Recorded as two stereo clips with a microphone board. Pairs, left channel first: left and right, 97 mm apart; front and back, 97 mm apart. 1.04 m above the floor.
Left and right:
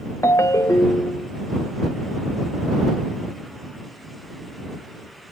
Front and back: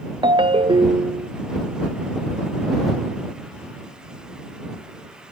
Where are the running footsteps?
No running footsteps in this recording.